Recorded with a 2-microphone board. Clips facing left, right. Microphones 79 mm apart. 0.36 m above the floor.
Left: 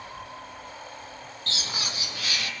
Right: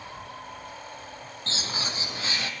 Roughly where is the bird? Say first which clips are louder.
Right 1 dB; right.